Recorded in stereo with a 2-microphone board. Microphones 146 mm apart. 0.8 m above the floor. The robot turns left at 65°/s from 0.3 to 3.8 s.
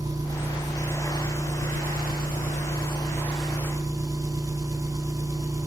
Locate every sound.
0.0 s an engine running: 155° right, 3.5 m; by 5.7 s 25° right, 3.5 m